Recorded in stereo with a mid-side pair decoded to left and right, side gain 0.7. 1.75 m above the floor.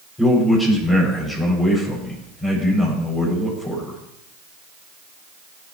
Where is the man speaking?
15° left, 9 m.